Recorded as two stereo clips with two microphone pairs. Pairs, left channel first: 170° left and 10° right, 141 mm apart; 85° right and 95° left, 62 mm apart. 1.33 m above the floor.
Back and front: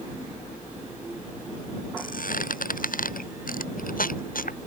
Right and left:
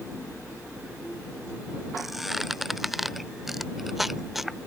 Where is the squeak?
Straight behind.